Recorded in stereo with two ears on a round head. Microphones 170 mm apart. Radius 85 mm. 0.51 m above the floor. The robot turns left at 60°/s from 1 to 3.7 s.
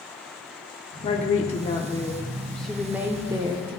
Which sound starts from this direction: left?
A woman speaking, at 1.0 s.